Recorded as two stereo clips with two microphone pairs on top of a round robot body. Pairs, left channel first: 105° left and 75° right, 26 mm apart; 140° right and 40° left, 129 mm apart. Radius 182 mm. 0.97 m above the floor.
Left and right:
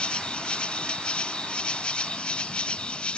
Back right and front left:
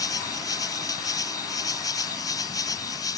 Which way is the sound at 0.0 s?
155° left.